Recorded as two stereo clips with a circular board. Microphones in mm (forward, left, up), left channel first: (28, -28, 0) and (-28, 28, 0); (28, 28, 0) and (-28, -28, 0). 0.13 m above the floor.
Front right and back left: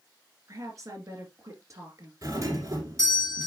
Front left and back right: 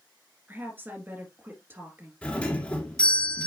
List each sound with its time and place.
0.5 s a woman speaking: 170° left, 2 m
2.2 s a doorbell: 115° left, 2 m